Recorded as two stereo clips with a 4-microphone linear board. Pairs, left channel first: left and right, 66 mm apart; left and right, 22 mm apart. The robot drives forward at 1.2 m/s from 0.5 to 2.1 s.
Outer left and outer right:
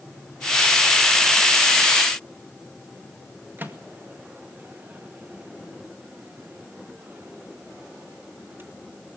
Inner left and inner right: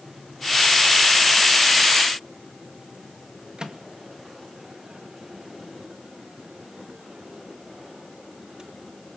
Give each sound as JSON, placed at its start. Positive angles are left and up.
{"t": 3.6, "sound": "a microwave", "side_deg": -30, "distance_m": 1.8}